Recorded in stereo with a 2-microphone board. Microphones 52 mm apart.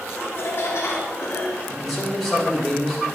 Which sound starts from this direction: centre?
A man speaking, at 1.7 s.